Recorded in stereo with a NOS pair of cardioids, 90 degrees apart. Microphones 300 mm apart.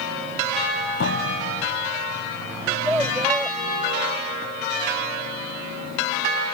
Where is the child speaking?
5° right.